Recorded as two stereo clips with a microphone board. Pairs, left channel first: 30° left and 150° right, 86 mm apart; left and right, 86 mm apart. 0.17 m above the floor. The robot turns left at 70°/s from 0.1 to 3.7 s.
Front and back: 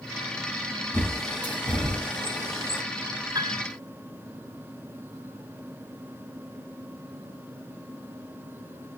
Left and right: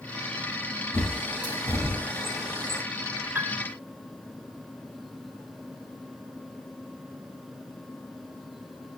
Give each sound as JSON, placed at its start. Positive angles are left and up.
{"t": 0.9, "sound": "a bird", "azimuth_deg": 95, "distance_m": 5.5}
{"t": 3.4, "sound": "a piano", "azimuth_deg": -150, "distance_m": 0.8}